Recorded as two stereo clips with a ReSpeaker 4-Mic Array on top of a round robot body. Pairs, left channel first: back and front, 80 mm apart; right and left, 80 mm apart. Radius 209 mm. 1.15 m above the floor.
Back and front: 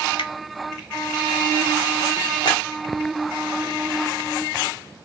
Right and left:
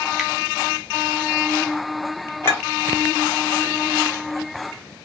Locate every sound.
0.2 s a finger snap: straight behind, 0.7 m
2.4 s a clink: 150° right, 0.7 m